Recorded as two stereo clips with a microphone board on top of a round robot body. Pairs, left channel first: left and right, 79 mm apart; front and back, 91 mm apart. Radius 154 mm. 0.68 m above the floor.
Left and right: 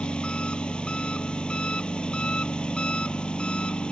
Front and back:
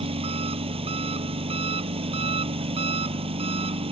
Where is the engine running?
170° left.